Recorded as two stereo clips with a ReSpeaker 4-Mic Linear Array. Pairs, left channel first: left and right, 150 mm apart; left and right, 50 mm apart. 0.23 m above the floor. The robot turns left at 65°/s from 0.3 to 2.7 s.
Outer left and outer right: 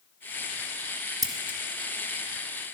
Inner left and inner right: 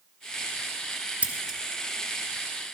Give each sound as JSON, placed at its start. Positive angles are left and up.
{"t": 1.2, "sound": "scissors", "side_deg": -25, "distance_m": 1.2}